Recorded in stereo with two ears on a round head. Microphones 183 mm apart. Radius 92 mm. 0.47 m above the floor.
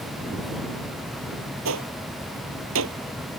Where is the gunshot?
80° right.